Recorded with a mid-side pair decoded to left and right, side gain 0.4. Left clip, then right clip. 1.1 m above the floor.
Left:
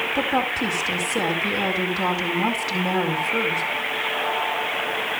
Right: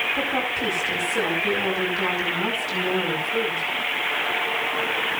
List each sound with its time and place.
0.1 s a woman speaking: 45° left, 8 m